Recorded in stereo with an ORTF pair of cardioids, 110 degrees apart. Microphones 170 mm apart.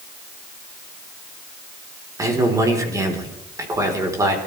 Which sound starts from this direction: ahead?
A man speaking, at 2.2 s.